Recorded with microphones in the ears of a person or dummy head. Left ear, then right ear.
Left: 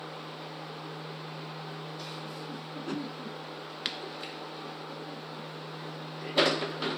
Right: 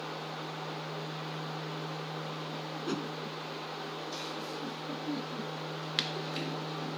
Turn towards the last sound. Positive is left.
turn(degrees=-5)  # may be behind; listen again after turning